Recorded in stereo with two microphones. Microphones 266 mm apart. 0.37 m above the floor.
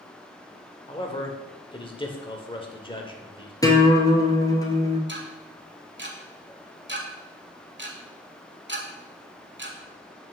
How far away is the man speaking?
About 0.9 m.